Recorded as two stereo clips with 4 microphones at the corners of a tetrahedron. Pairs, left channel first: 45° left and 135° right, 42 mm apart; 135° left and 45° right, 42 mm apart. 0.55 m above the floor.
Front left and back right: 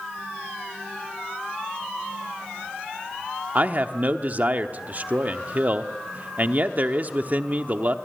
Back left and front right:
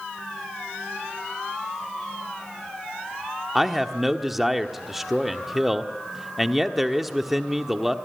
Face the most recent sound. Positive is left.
turn(degrees=-125)